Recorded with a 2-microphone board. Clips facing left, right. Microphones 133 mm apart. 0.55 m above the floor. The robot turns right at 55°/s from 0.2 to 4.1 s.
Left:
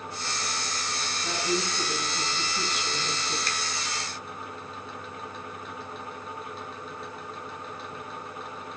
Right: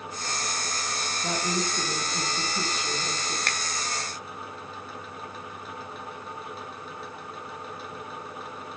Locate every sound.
1.2 s a woman speaking: 125° right, 3 m; by 3.4 s 5° right, 3 m
3.5 s a finger snap: 60° right (ahead or behind), 0.7 m